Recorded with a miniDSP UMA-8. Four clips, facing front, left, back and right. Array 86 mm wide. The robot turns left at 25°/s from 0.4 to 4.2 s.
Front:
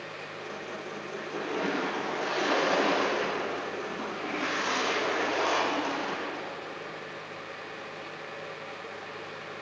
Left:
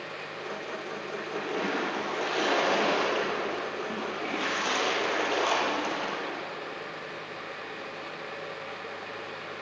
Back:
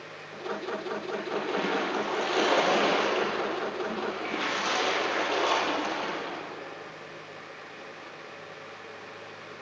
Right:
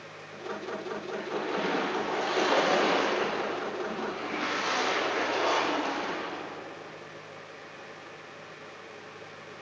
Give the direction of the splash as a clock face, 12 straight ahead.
5 o'clock.